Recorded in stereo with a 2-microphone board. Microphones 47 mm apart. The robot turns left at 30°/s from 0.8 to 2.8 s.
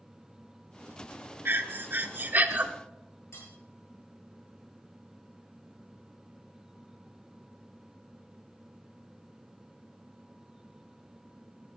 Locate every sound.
1.4 s breathing: 100° right, 0.7 m; by 2.7 s 135° right, 0.7 m
3.3 s cutlery clinking: 65° left (ahead or behind), 6.5 m